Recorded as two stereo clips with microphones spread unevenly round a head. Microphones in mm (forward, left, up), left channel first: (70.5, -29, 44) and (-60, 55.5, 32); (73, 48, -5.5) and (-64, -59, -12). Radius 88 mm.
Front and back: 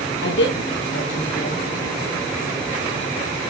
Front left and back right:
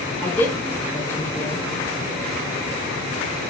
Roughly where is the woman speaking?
Ahead right.